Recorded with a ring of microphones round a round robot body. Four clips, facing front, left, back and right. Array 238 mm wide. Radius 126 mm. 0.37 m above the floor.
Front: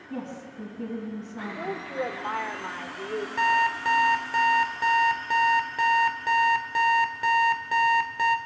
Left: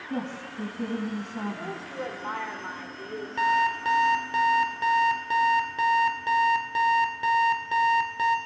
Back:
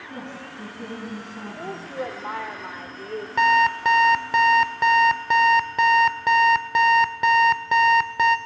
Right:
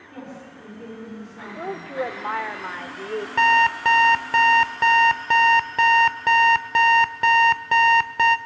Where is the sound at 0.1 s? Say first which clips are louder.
Left 5 dB, front 2 dB; 85° left, 3.5 m.